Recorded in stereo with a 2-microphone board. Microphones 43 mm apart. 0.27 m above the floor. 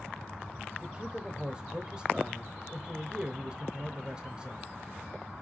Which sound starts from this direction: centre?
A man speaking, at 0.8 s.